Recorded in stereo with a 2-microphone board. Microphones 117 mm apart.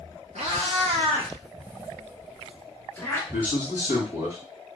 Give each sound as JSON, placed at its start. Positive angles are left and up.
{"t": 0.3, "sound": "a cat meowing", "side_deg": -70, "distance_m": 0.9}
{"t": 3.3, "sound": "a man speaking", "side_deg": -20, "distance_m": 1.7}